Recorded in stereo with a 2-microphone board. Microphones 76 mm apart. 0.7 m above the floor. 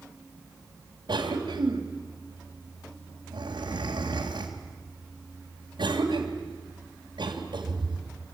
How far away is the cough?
About 3 m.